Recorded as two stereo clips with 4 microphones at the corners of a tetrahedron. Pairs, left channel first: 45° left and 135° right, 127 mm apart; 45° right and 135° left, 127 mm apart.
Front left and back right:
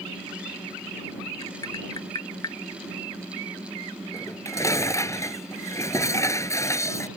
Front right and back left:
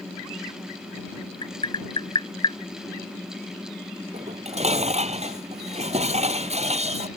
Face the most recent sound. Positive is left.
turn(degrees=110)